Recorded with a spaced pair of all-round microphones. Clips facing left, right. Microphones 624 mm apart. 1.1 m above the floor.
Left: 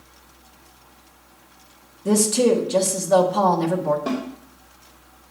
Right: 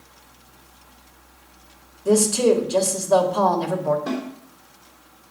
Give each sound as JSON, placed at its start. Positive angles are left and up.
{"t": 2.0, "sound": "a woman speaking", "side_deg": 45, "distance_m": 1.5}
{"t": 4.1, "sound": "a snare drum", "side_deg": 85, "distance_m": 2.5}